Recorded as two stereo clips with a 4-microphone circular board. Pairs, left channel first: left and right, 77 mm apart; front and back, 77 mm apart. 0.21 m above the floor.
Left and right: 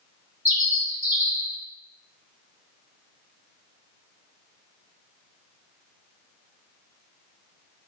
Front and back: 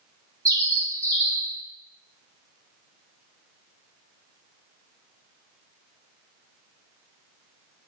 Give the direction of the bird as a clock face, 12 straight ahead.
5 o'clock.